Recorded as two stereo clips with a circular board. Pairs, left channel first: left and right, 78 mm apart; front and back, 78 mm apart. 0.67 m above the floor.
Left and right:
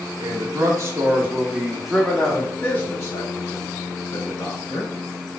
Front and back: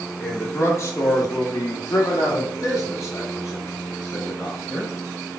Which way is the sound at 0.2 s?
60° right.